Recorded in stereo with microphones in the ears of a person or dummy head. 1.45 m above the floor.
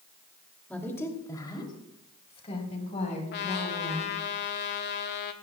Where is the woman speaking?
10° left (ahead or behind), 2.5 m; by 4.1 s 40° left (ahead or behind), 5 m.